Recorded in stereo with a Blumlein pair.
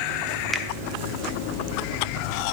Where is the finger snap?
5° right, 1.0 m.